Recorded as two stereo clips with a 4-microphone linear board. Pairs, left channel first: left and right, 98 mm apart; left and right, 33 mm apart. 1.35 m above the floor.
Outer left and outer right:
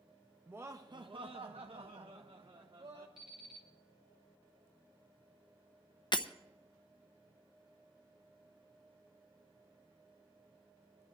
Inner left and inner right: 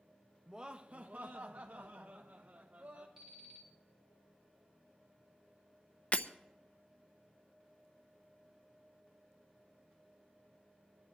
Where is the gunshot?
I don't hear a gunshot.